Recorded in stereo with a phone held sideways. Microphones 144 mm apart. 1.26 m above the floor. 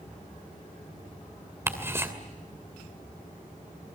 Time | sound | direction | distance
1.7 | ticking | 20° right (ahead or behind) | 2.5 m